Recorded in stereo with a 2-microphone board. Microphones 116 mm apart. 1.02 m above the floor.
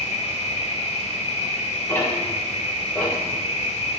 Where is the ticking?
15° left (ahead or behind), 2.5 m.